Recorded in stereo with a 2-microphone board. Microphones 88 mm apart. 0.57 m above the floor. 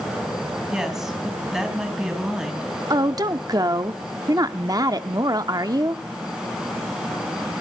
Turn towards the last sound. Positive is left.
turn(degrees=-45)  # may be behind; listen again after turning